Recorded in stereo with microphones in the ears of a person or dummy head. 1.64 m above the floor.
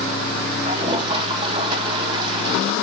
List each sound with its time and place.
0.7 s a toilet flushing: 30° right (ahead or behind), 0.7 m